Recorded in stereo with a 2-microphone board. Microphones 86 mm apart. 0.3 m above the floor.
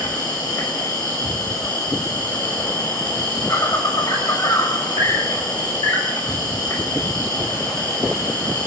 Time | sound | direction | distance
0.0 | an insect | 50° left (ahead or behind) | 5 m